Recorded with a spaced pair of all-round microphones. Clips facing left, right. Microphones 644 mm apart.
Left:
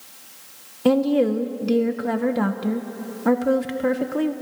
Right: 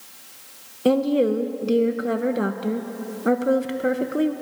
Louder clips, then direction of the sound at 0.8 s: Left 1 dB; 25° left (ahead or behind).